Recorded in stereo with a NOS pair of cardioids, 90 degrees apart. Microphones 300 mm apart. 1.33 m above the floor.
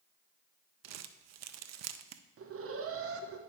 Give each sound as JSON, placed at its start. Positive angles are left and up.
{"t": 0.8, "sound": "crumpling", "azimuth_deg": -65, "distance_m": 0.6}
{"t": 2.4, "sound": "an alarm", "azimuth_deg": -50, "distance_m": 1.1}